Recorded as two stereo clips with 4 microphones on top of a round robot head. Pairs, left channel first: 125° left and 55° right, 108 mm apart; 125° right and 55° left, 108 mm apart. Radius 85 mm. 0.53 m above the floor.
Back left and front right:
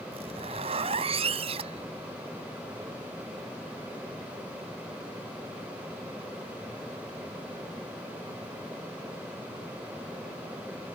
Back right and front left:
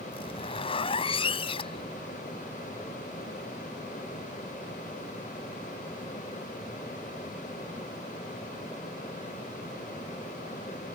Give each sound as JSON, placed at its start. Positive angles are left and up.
{"t": 0.1, "sound": "a zipper", "azimuth_deg": -85}